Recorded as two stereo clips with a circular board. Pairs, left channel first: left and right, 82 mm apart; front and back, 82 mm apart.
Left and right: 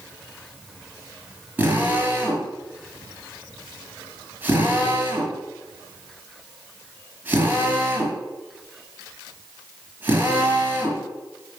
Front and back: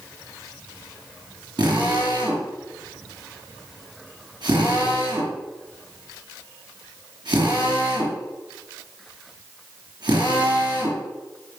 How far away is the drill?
About 5 m.